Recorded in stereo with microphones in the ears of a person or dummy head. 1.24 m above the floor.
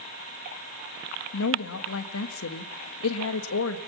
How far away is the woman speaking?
About 1.8 m.